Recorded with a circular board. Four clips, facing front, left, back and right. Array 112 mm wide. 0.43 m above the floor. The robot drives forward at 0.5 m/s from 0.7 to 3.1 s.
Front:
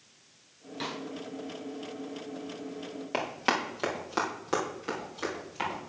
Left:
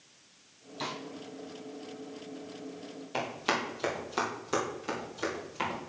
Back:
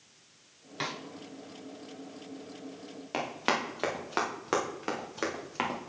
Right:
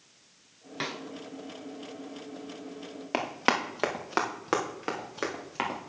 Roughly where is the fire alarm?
No fire alarm in this recording.